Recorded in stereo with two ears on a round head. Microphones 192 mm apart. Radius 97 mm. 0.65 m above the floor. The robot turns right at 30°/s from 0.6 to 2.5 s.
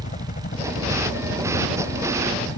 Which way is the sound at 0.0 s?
35° left (ahead or behind).